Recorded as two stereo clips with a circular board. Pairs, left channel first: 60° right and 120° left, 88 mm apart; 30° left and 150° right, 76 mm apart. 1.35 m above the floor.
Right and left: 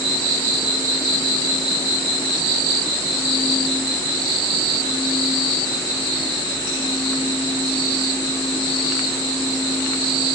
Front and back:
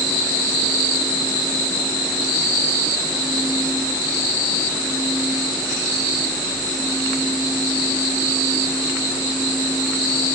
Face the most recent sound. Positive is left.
No sound to turn to.